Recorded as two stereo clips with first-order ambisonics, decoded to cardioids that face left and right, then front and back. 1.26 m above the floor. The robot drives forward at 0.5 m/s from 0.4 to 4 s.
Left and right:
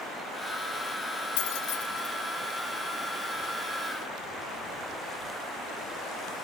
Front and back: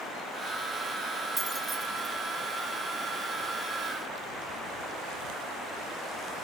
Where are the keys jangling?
100° left, 1.4 m; by 2.1 s 110° left, 1.5 m.